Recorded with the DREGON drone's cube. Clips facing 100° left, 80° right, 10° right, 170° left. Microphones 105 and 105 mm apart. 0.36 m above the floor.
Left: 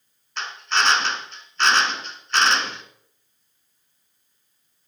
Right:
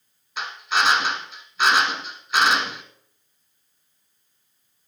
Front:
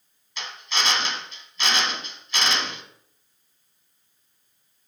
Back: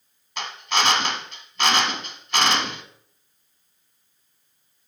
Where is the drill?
160° right, 1.5 m.